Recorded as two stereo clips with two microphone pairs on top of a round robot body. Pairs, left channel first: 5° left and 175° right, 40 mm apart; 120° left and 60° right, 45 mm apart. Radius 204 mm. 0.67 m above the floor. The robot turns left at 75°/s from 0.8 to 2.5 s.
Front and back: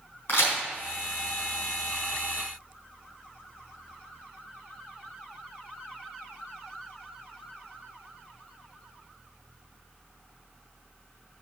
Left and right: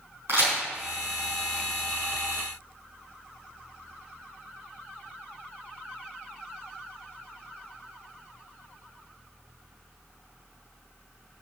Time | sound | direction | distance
0.3 | a crack | 20° right | 4 m